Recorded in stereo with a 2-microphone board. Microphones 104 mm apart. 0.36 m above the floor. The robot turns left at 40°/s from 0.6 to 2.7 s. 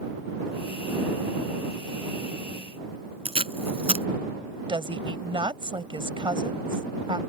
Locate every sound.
3.2 s tape being pulled: 75° right (ahead or behind)
4.7 s a woman speaking: 55° right (ahead or behind)